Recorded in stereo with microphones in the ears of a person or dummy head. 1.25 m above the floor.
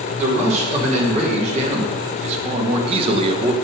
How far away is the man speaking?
About 4.5 m.